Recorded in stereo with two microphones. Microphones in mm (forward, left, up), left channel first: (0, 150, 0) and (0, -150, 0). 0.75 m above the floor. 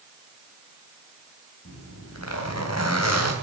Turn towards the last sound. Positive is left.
turn(degrees=60)  # may be behind; listen again after turning